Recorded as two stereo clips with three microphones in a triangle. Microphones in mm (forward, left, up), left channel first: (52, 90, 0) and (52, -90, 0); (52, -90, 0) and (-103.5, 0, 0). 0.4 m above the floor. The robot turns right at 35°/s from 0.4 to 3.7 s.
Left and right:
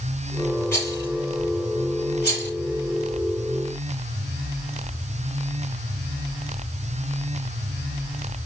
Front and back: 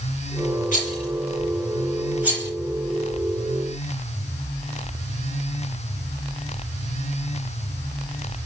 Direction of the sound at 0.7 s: 15° left.